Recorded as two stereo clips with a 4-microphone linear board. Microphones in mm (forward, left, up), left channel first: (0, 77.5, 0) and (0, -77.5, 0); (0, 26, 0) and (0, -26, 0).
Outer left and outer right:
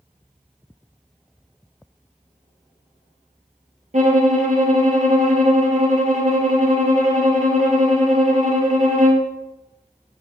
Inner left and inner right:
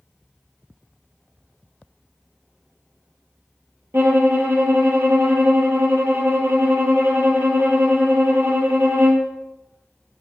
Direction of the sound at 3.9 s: 55° right (ahead or behind).